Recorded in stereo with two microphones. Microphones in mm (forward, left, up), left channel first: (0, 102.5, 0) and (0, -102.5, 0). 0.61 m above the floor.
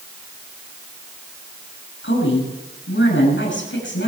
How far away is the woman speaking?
About 7.5 m.